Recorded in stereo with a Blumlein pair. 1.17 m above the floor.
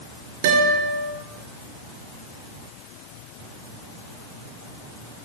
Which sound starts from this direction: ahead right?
A guitar, at 0.4 s.